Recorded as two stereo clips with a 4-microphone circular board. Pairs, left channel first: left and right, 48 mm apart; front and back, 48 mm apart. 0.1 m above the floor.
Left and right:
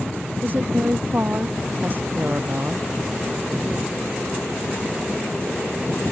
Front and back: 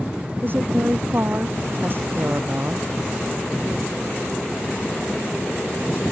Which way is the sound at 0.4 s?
135° right.